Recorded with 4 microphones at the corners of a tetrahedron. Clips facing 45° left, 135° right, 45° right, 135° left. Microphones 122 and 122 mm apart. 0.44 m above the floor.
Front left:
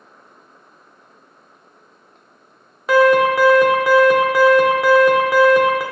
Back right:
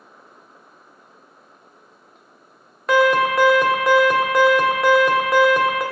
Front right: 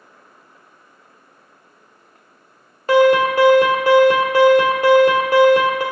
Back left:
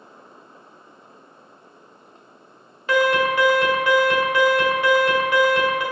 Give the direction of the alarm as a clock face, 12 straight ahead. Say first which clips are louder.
Front left 4 dB, front right 6 dB; 1 o'clock.